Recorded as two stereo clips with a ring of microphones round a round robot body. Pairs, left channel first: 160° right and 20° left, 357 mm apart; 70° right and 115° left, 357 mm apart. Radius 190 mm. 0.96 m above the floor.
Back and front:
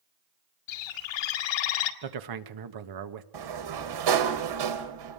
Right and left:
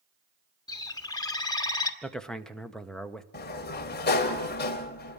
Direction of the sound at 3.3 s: 5° right.